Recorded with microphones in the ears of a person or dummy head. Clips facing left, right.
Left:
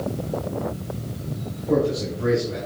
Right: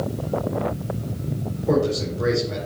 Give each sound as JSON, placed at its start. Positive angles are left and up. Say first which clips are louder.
{"t": 1.7, "sound": "a man speaking", "louder": "even", "side_deg": -85, "distance_m": 4.0}